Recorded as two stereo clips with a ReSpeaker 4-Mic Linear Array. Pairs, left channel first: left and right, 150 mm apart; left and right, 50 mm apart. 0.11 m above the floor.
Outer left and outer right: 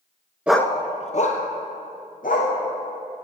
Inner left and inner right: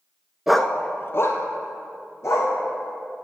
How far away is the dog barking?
About 0.5 m.